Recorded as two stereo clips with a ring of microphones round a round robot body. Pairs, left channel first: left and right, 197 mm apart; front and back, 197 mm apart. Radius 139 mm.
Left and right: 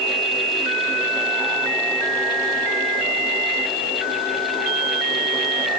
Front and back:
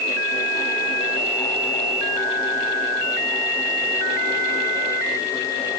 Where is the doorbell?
No doorbell in this recording.